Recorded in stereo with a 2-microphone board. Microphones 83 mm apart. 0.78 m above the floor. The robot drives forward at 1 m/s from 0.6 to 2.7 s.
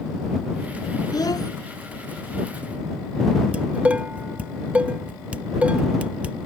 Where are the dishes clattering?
15° right (ahead or behind).